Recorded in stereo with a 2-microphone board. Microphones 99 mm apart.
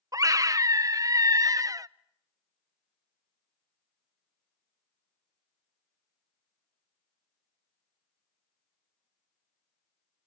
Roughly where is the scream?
Right.